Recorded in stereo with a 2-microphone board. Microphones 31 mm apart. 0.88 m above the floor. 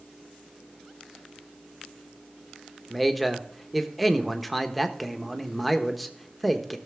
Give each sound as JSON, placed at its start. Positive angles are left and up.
{"t": 2.9, "sound": "a man speaking", "side_deg": 5, "distance_m": 1.0}